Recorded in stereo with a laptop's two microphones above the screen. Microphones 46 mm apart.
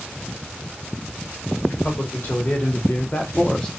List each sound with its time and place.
1.7 s a man speaking: 50° left (ahead or behind), 1.6 m; by 3.7 s 20° left (ahead or behind), 0.7 m